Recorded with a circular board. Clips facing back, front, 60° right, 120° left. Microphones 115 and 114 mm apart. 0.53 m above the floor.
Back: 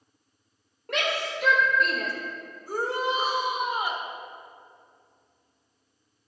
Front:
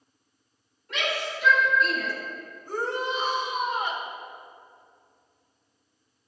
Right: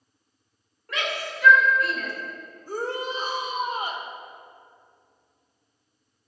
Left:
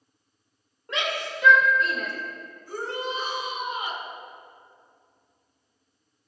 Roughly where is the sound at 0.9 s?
Behind.